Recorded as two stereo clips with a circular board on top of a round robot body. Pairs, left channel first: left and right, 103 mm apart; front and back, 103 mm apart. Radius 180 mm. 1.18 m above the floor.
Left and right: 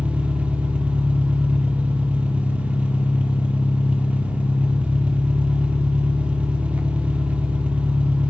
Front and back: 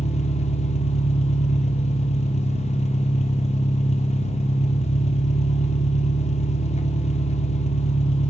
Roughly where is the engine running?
Ahead.